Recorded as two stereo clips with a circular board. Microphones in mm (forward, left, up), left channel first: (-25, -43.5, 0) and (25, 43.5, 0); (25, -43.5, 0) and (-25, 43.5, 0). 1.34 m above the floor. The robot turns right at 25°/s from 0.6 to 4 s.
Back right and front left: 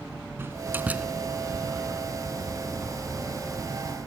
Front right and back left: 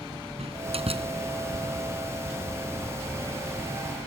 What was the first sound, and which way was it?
A door slam, 130° left.